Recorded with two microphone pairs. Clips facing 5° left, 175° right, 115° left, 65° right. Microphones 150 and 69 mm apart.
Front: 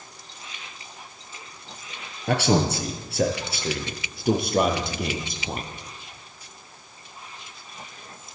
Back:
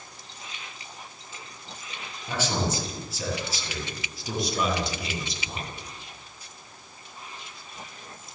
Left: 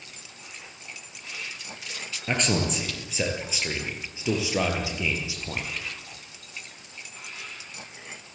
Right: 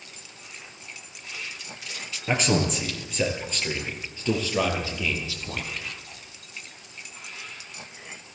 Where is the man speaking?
20° left, 5 m; by 5.7 s 45° left, 6.5 m.